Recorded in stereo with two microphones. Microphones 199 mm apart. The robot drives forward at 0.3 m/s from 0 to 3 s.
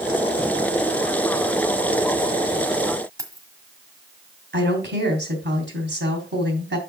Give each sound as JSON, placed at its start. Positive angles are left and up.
{"t": 3.2, "sound": "keys jangling", "side_deg": -15, "distance_m": 1.5}
{"t": 4.5, "sound": "a woman speaking", "side_deg": -65, "distance_m": 3.0}